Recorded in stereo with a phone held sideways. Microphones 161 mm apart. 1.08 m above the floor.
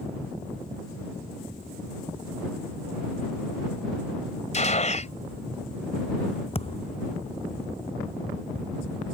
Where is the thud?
35° left (ahead or behind).